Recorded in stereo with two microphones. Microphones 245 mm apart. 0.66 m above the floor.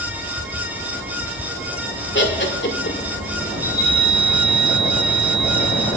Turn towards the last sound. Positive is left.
turn(degrees=15)  # may be behind; listen again after turning